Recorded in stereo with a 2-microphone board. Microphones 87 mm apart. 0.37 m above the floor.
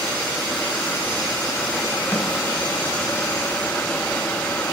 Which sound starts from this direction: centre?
A snare drum, at 2.1 s.